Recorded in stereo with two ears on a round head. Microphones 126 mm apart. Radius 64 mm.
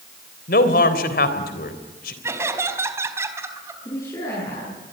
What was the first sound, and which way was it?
A man speaking, 70° left (ahead or behind).